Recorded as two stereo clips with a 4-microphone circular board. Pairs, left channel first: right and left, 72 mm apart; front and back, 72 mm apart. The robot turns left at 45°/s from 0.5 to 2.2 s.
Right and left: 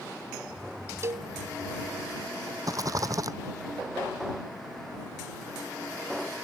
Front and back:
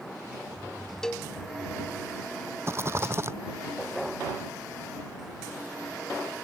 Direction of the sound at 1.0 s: 80° left.